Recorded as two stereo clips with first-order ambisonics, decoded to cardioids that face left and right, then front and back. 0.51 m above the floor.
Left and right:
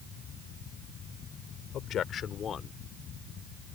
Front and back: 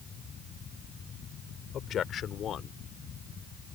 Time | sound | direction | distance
1.7 | a man speaking | 50° left | ?